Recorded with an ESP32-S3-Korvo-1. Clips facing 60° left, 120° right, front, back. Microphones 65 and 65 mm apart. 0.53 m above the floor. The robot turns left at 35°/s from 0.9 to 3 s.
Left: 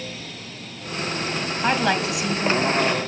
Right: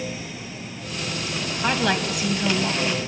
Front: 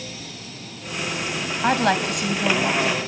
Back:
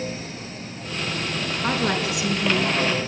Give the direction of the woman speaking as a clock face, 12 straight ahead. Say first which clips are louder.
Left 1 dB, front 5 dB; 12 o'clock.